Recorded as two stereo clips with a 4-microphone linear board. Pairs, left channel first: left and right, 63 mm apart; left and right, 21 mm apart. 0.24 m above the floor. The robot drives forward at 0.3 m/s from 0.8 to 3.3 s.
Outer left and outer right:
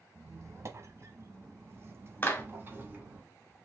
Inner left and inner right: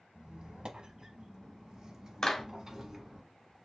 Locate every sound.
0.1 s a squeak: 50° right (ahead or behind), 0.7 m; by 3.2 s 30° right (ahead or behind), 1.1 m
2.2 s a clap: 30° left (ahead or behind), 1.0 m